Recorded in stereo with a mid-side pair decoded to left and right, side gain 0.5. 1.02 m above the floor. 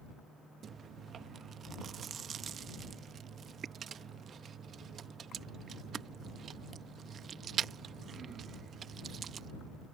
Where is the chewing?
50° right.